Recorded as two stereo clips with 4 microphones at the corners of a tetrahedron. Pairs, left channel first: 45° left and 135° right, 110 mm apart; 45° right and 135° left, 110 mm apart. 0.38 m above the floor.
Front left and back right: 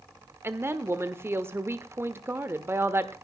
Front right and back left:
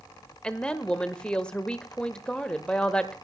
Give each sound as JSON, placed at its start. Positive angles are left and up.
{"t": 0.4, "sound": "a woman speaking", "azimuth_deg": -110, "distance_m": 1.1}